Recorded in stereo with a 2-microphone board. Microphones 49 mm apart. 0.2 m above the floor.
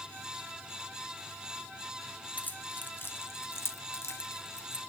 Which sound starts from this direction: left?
Keys jangling, at 2.4 s.